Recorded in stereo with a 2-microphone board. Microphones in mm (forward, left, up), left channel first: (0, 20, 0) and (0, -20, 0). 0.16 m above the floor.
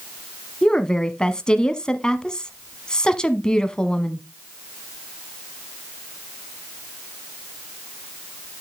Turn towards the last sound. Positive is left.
turn(degrees=20)  # may be behind; listen again after turning